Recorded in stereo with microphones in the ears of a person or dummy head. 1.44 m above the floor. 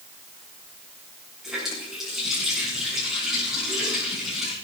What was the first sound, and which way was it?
A running tap, 5° right (ahead or behind).